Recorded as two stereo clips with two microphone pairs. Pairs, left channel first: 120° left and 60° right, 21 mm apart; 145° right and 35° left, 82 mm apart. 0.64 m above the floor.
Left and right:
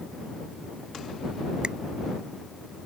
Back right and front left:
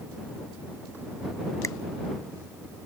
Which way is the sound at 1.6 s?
95° right.